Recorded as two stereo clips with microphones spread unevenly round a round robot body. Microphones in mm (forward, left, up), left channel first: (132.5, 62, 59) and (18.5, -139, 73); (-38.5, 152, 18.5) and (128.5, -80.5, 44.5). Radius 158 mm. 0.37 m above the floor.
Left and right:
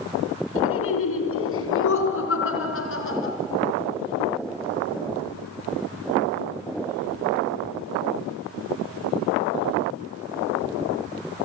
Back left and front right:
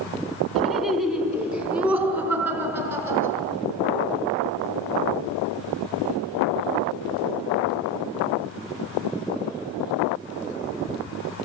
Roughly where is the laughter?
Ahead left.